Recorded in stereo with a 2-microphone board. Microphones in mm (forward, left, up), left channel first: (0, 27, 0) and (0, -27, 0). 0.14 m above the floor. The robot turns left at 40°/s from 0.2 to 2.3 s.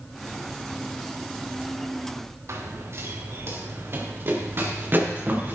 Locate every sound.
2.5 s running footsteps: 60° right (ahead or behind), 3 m; by 5.5 s 40° right (ahead or behind), 5 m